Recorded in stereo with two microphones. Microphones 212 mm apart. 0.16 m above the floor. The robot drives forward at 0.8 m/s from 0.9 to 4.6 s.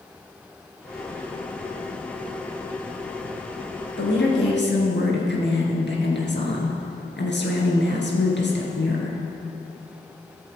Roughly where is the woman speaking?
Left.